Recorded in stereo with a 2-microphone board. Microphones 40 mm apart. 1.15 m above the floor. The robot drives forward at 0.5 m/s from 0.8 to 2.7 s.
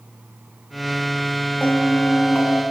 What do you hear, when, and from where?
1.6 s a bell: 45° left (ahead or behind), 0.6 m; by 2.6 s 35° left (ahead or behind), 0.8 m